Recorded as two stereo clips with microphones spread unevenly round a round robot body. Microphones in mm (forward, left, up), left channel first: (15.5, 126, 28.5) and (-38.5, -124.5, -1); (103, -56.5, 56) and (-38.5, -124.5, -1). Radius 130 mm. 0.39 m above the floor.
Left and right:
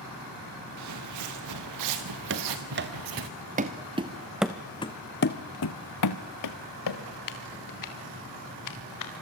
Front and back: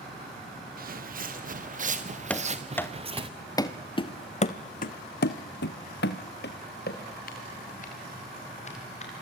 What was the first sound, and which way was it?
Footsteps, 125° right.